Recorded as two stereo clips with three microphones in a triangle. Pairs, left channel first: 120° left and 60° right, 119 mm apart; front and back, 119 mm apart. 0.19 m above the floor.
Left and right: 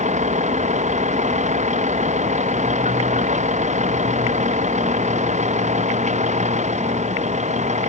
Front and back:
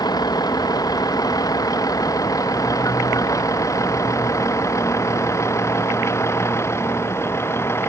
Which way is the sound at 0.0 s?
55° right.